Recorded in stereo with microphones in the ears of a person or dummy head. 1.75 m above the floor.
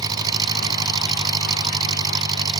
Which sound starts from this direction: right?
An engine running, at 0.0 s.